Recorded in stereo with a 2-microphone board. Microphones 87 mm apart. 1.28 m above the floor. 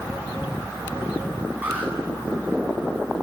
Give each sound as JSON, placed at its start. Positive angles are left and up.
{"t": 1.6, "sound": "an alarm", "side_deg": -20, "distance_m": 9.0}